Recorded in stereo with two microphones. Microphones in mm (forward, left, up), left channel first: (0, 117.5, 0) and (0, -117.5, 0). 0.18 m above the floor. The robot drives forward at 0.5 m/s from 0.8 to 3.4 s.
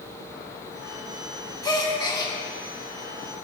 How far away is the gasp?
About 1.0 m.